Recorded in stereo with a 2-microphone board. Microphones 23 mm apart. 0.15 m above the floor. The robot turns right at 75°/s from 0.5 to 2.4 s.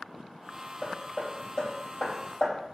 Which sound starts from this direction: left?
Hammering, at 0.8 s.